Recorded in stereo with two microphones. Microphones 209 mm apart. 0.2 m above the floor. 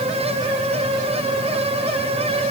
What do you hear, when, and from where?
Only background noise.